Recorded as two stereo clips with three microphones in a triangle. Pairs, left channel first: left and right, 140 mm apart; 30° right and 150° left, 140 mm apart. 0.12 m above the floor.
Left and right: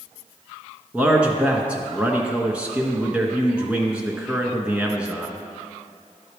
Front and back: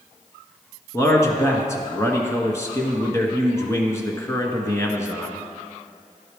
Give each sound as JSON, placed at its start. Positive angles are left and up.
{"t": 0.9, "sound": "a man speaking", "azimuth_deg": -25, "distance_m": 1.1}